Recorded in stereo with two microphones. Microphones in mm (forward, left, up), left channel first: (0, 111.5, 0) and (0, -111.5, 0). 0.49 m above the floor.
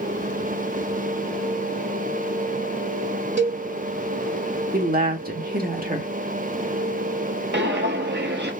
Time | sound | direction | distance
3.4 | a cowbell | 55° right (ahead or behind) | 1.8 m
4.7 | a woman speaking | 40° right (ahead or behind) | 1.0 m
7.5 | footsteps | 50° right (ahead or behind) | 0.7 m